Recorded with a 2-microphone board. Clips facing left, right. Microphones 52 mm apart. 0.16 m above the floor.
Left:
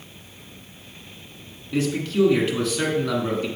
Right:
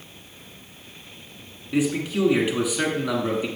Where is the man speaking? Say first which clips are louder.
Left 1 dB; 10° right (ahead or behind), 1.3 m.